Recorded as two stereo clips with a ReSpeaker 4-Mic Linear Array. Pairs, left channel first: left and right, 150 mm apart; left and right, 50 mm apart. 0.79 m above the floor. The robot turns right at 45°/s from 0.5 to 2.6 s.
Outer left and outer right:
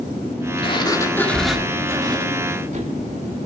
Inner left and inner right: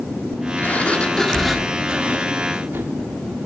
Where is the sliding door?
140° left, 1.5 m; by 3.0 s 130° right, 1.5 m.